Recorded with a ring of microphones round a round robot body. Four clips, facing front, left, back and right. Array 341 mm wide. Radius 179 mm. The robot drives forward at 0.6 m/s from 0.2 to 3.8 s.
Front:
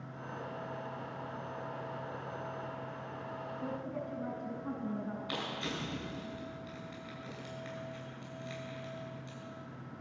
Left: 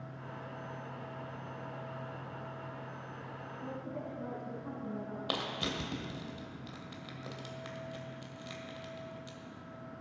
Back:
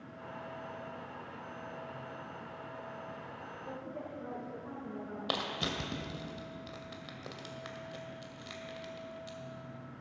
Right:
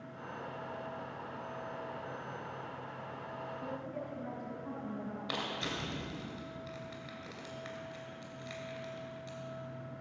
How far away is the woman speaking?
About 4.5 m.